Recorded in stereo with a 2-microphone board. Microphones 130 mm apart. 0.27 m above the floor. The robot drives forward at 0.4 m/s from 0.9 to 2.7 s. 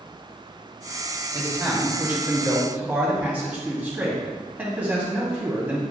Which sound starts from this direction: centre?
A man speaking, at 1.3 s.